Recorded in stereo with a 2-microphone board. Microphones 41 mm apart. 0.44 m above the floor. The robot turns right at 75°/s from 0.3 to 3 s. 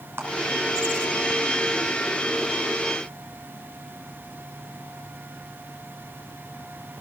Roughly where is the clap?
Right.